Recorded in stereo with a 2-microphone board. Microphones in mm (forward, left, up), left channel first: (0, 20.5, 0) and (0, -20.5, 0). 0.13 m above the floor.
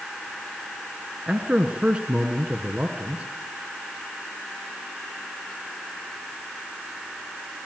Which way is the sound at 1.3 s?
25° right (ahead or behind).